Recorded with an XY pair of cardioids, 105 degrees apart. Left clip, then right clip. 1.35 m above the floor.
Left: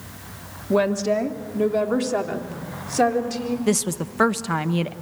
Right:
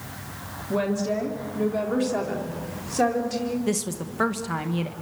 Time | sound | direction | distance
0.7 | a woman speaking | 45° left | 3 m
3.7 | a woman speaking | 35° left | 1.4 m